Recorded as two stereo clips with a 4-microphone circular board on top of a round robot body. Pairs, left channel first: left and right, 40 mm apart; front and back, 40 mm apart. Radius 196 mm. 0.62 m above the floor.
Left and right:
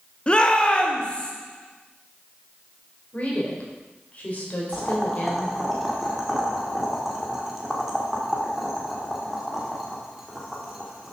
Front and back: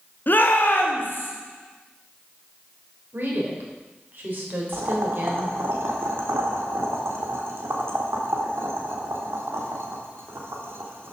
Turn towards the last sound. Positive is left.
turn(degrees=-175)